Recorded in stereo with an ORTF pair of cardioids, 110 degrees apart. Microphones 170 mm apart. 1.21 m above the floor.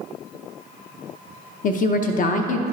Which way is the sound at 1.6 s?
50° left.